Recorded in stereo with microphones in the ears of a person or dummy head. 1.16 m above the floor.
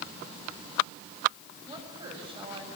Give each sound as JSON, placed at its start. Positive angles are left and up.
{"t": 1.7, "sound": "a woman speaking", "side_deg": -25, "distance_m": 6.5}